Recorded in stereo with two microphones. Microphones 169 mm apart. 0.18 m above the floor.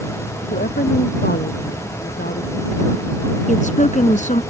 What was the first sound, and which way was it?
A woman speaking, 65° left (ahead or behind).